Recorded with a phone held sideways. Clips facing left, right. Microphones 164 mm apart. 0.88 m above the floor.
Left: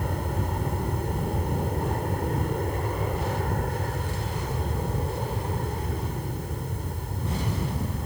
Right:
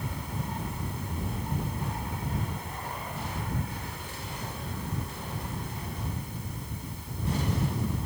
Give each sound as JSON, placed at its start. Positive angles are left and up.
{"t": 0.0, "sound": "an aircraft", "side_deg": 55}